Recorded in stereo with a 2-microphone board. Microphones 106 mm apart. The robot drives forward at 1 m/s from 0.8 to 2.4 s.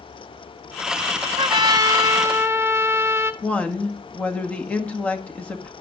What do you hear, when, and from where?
1.4 s a trumpet: 55° right (ahead or behind), 0.7 m; by 3.3 s 20° right (ahead or behind), 1.6 m
3.4 s a woman speaking: 10° left (ahead or behind), 1.8 m